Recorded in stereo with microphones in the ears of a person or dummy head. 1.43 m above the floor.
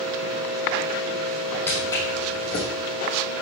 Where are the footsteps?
10° left (ahead or behind), 4 m; by 2.7 s 35° left (ahead or behind), 4 m.